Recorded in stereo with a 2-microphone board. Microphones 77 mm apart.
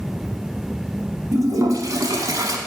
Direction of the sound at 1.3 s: 50° right (ahead or behind).